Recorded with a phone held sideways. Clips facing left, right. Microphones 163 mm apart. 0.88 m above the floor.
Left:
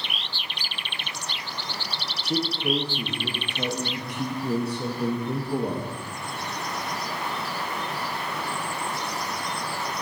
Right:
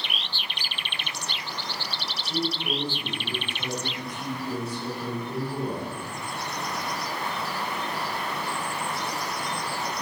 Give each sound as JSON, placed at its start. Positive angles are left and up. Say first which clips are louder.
{"t": 2.2, "sound": "a man speaking", "louder": "left 3 dB", "side_deg": 65, "distance_m": 0.9}